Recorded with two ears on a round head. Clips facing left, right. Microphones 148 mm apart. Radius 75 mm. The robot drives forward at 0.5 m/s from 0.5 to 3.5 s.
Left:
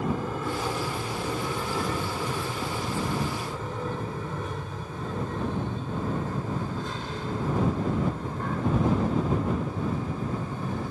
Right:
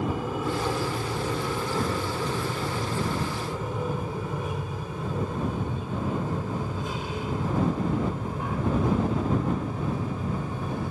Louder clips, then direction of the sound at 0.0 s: Right 1 dB; 5° right (ahead or behind).